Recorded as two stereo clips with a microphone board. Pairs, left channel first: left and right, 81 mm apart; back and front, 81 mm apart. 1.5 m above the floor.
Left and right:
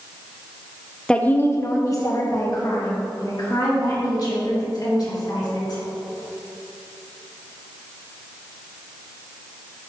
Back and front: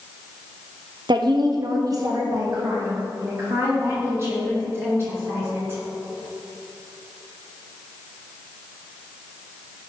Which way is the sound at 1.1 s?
10° left.